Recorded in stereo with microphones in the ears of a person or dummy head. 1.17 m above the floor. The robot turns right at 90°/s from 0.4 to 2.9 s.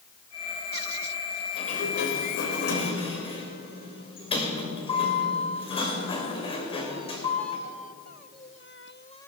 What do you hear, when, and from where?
1.6 s a sliding door: 30° left, 2 m; by 7.6 s 150° left, 2 m